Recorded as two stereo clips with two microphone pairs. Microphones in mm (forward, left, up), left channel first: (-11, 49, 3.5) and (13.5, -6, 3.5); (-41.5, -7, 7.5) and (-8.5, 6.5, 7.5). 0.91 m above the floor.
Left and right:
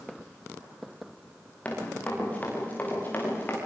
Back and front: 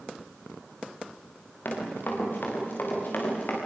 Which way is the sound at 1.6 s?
Straight behind.